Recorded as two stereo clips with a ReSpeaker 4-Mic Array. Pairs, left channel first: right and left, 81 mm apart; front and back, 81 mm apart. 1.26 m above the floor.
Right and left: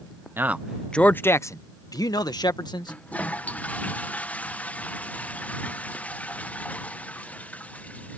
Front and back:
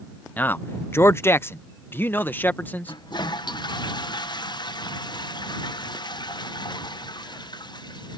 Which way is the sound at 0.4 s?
55° left.